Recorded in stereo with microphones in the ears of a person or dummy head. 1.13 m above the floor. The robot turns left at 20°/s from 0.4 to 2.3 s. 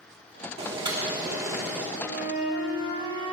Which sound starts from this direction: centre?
A flute, at 2.0 s.